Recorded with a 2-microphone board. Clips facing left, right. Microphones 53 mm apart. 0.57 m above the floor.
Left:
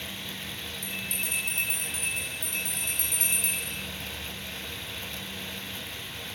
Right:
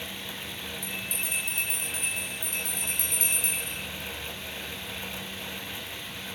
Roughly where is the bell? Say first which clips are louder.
Left 1 dB; left.